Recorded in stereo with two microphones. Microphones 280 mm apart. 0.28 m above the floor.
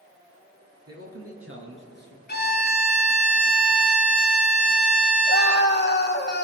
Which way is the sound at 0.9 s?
60° right (ahead or behind).